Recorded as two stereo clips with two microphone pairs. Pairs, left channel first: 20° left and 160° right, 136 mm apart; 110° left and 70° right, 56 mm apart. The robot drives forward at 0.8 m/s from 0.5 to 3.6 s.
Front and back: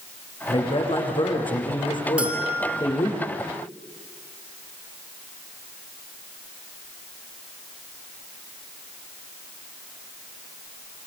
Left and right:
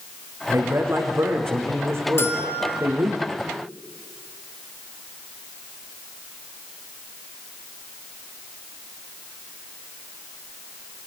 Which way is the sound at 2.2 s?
120° left.